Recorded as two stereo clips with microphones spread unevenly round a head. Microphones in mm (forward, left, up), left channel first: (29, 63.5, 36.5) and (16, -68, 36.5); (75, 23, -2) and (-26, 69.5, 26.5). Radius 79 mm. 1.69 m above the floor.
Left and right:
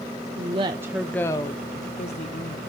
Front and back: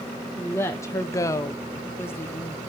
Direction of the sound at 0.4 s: 110° right.